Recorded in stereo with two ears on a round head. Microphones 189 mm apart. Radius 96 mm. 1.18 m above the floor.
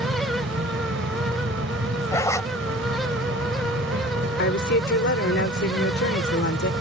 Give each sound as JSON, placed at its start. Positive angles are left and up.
{"t": 0.0, "sound": "an insect", "side_deg": -60}
{"t": 2.1, "sound": "a zipper", "side_deg": 15}
{"t": 4.4, "sound": "a woman speaking", "side_deg": 55}